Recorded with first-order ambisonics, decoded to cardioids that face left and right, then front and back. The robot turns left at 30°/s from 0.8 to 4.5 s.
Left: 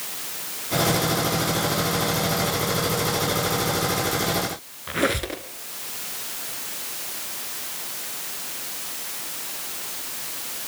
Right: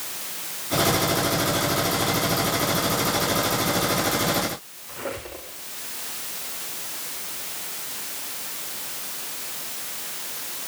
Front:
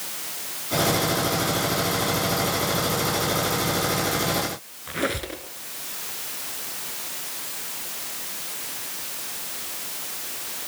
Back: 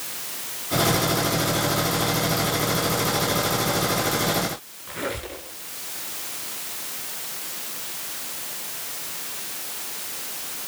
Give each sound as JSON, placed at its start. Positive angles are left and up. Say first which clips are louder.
{"t": 4.9, "sound": "a squeak", "louder": "left 9 dB, front 3 dB", "azimuth_deg": 70, "distance_m": 2.0}